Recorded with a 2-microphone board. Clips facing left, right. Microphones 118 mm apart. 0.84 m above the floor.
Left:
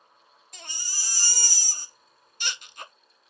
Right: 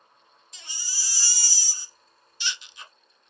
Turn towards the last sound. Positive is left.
turn(degrees=50)  # may be behind; listen again after turning